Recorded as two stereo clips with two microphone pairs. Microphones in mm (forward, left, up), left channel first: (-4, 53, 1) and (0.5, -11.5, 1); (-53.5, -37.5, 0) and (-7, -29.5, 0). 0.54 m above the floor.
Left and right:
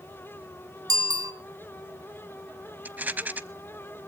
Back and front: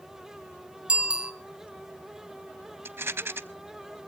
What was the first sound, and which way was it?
A bicycle bell, 60° right.